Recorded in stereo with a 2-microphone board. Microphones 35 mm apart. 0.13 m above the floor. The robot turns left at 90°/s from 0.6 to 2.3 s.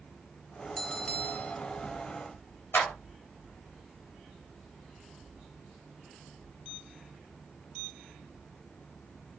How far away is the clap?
About 6 m.